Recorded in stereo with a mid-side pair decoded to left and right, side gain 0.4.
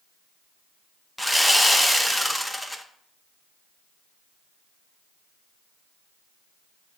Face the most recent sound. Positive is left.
turn(degrees=5)